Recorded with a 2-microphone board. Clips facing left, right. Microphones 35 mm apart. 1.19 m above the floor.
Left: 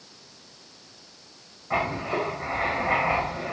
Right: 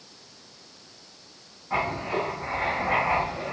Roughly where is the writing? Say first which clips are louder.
Left 1 dB; left.